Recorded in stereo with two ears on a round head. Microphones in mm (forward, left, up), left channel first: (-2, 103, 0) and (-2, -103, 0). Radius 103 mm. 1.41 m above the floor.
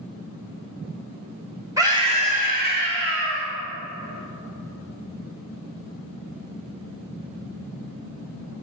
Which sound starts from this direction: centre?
A scream, at 1.8 s.